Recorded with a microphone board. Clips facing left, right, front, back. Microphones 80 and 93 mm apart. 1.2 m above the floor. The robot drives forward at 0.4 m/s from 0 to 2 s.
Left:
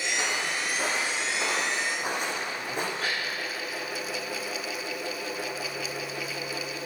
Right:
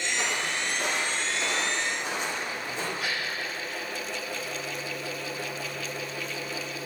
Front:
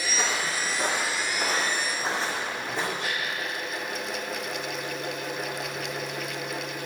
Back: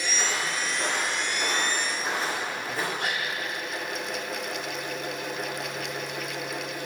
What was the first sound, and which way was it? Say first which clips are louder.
Footsteps: even, front 1 dB; 25° left.